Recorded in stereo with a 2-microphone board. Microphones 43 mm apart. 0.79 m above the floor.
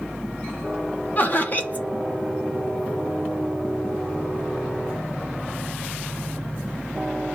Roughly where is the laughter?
Left.